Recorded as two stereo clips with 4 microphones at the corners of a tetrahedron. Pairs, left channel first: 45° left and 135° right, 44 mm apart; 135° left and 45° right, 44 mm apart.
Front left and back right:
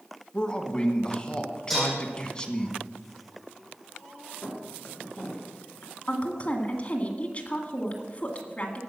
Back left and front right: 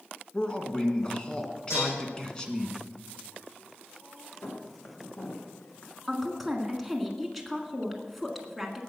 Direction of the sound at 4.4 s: 100° left.